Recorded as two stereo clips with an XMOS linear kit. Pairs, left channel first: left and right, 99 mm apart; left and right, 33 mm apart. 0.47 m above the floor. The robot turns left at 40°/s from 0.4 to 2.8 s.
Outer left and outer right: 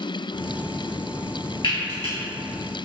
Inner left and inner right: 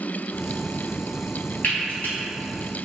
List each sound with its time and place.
1.6 s frying: 65° left (ahead or behind), 2.0 m; by 2.1 s 85° left, 2.0 m